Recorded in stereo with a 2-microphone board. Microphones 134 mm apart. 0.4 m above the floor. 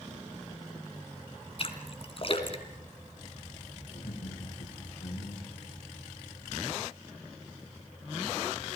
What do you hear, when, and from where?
1.6 s a splash: 45° left (ahead or behind), 2.5 m
3.9 s laughter: 65° left (ahead or behind), 9.5 m